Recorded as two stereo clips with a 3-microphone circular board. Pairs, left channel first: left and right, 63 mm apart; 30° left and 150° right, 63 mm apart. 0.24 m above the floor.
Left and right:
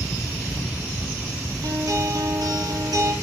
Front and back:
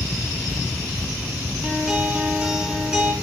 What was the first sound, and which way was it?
A guitar, 70° right.